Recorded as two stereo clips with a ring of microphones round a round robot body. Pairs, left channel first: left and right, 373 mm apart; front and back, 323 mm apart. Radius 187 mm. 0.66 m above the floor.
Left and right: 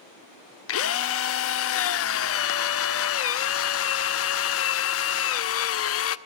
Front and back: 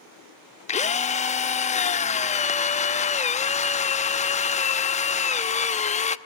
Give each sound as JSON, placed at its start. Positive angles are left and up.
{"t": 0.7, "sound": "a drill", "azimuth_deg": 60, "distance_m": 0.8}